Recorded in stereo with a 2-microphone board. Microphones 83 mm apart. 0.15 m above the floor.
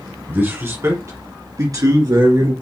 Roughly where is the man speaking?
Right.